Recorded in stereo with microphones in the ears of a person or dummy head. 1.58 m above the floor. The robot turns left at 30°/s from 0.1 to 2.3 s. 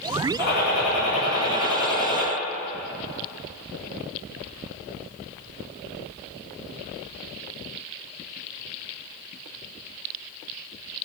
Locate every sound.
0.4 s a gunshot: 125° left, 3 m; by 2.3 s 70° left, 3 m